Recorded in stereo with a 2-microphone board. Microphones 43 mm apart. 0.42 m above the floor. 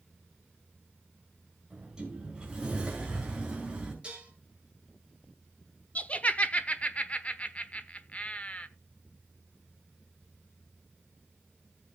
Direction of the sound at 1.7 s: 20° right (ahead or behind).